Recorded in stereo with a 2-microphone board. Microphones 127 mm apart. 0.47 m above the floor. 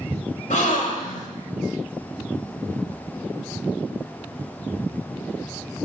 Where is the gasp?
70° left (ahead or behind), 1.9 m.